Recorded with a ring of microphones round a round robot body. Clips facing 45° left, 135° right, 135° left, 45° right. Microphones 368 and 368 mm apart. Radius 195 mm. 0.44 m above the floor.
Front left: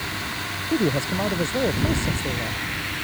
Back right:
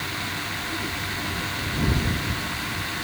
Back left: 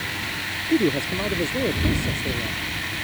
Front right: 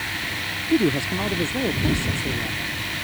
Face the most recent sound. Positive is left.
turn(degrees=35)